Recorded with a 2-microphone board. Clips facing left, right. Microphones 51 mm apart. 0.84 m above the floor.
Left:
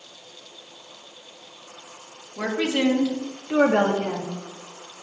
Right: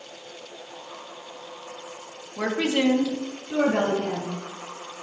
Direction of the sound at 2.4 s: 10° right (ahead or behind).